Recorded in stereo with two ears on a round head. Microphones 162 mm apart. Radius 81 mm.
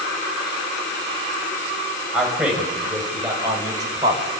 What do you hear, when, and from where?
2.1 s a man speaking: 5° right (ahead or behind), 5.5 m; by 4.2 s 25° right (ahead or behind), 4.5 m